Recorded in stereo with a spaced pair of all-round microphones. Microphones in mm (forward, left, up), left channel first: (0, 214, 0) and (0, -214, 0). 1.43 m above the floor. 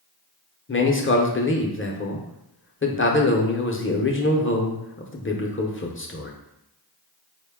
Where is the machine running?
No machine running in this recording.